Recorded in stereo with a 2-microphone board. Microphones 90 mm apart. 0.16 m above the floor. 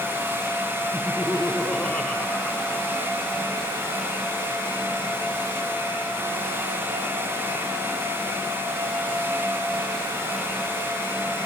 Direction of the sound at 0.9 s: Centre (ahead or behind).